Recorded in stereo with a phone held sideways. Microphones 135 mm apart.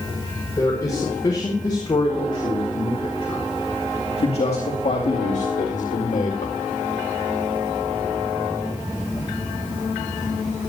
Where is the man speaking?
25° left (ahead or behind), 4.5 m; by 6.5 s 70° left (ahead or behind), 1.8 m.